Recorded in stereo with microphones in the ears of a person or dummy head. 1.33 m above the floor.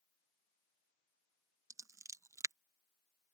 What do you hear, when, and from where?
1.7 s scissors: 20° right (ahead or behind)